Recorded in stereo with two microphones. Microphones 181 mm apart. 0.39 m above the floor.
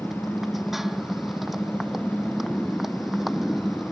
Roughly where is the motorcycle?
Centre.